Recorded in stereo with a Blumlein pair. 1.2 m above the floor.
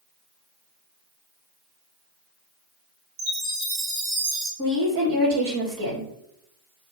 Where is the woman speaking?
30° right, 1.2 m.